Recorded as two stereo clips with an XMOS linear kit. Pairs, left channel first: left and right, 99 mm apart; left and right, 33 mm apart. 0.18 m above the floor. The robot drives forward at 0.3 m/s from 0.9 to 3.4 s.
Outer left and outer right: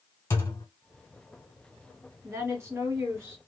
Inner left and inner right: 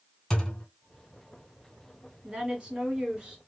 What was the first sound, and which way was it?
A thud, 30° left (ahead or behind).